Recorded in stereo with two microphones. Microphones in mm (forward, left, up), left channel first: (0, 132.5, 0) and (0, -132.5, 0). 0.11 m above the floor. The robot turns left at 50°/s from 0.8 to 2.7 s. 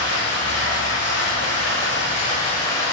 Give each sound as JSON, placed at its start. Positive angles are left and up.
{"t": 0.0, "sound": "running water", "azimuth_deg": 105, "distance_m": 1.2}